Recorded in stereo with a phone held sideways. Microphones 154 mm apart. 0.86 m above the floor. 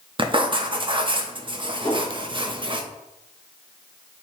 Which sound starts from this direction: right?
Writing, at 0.2 s.